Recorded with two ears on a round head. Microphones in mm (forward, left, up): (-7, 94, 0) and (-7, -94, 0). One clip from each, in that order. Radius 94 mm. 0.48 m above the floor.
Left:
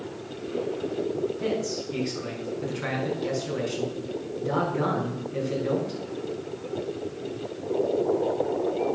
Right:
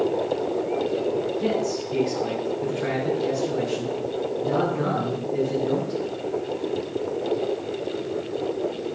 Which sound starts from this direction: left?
A man speaking, at 1.4 s.